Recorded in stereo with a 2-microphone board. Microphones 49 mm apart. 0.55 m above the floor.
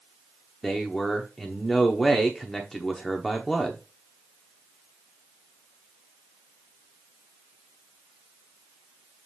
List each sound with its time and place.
0.6 s a man speaking: centre (ahead or behind), 0.9 m